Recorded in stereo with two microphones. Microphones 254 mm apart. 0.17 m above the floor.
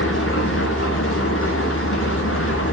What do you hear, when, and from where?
0.0 s an engine running: 55° left (ahead or behind), 1.0 m